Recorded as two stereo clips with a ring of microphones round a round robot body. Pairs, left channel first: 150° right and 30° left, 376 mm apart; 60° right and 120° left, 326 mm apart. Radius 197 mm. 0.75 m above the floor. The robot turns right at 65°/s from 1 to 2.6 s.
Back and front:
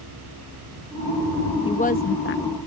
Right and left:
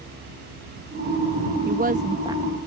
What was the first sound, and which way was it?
A woman speaking, 145° left.